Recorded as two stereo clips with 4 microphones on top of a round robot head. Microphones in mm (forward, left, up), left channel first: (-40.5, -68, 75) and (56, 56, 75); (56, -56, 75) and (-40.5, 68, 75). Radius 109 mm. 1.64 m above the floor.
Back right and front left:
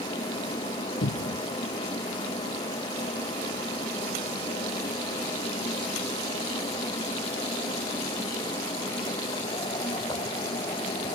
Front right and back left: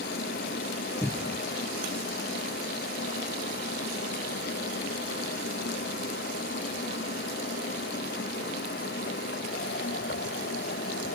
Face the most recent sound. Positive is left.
turn(degrees=-130)